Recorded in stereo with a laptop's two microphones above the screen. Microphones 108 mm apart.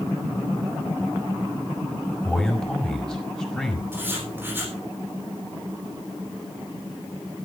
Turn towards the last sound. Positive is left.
turn(degrees=-20)  # may be behind; listen again after turning